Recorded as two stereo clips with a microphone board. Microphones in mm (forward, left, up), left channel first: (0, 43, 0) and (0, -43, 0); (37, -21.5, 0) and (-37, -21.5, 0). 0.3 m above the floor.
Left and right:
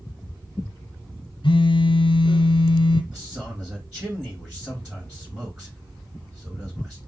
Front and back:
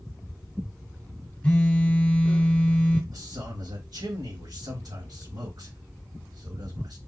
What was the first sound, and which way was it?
A phone buzzing, 75° left.